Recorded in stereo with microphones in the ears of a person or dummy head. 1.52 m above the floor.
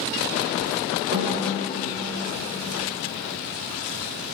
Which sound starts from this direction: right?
A snare drum, at 1.1 s.